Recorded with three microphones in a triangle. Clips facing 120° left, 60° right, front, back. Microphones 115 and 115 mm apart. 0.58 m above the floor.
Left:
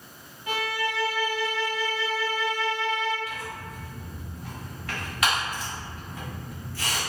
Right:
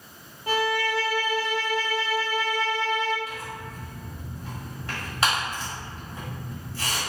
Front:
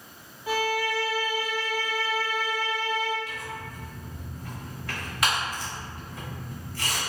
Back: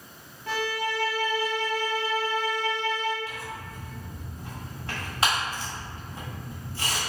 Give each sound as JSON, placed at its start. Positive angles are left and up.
{"t": 0.5, "sound": "a violin", "azimuth_deg": -75, "distance_m": 0.6}
{"t": 3.3, "sound": "tearing paper", "azimuth_deg": -120, "distance_m": 1.5}